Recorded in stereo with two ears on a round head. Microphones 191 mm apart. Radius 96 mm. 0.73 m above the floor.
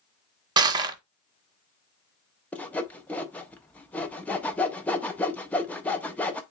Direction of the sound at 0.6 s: 20° right (ahead or behind).